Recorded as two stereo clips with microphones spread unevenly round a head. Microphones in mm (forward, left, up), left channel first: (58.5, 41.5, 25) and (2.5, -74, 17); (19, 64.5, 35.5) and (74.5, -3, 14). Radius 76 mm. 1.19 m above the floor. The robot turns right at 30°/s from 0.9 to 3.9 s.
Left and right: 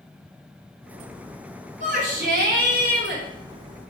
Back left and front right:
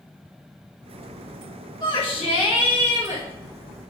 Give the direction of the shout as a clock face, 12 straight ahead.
5 o'clock.